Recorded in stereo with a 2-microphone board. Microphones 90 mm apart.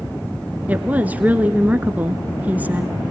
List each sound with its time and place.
0.7 s a woman speaking: 15° right (ahead or behind), 1.2 m